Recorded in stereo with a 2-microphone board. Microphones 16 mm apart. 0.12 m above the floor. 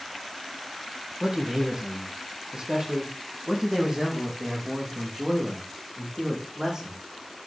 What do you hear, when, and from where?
1.2 s a man speaking: 50° right (ahead or behind), 4 m; by 7.0 s 45° right (ahead or behind), 7.5 m